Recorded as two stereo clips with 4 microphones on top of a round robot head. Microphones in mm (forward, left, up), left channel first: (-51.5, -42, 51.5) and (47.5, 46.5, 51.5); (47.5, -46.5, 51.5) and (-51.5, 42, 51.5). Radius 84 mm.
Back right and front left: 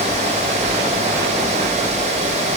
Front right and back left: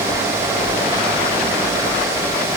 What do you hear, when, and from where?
Only background noise.